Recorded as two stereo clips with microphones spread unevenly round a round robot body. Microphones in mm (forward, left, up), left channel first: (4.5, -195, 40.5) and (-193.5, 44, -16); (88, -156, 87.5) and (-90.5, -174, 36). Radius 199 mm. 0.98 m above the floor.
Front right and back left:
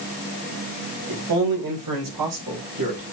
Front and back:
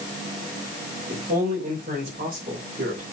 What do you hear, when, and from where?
1.1 s a man speaking: 135° left, 3.5 m; by 3.0 s 120° left, 3.5 m